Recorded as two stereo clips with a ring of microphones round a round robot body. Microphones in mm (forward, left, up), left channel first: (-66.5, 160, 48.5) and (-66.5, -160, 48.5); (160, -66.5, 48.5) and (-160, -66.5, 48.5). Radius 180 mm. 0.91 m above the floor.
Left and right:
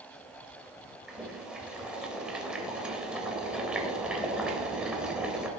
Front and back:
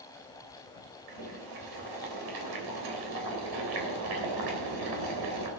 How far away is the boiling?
About 3 m.